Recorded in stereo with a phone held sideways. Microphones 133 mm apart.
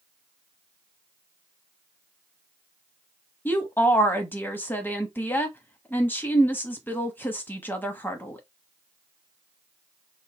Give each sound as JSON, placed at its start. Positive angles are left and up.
{"t": 3.5, "sound": "a woman speaking", "side_deg": 15, "distance_m": 1.0}